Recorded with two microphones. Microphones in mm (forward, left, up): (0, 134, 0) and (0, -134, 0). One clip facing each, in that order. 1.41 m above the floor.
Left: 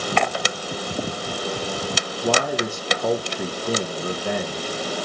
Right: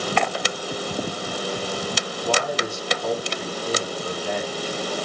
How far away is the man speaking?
About 0.8 m.